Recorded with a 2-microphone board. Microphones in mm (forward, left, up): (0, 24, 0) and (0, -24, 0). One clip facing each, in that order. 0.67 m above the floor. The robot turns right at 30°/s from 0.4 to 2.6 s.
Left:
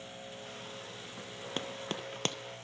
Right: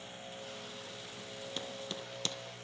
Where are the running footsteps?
45° left (ahead or behind), 0.9 m.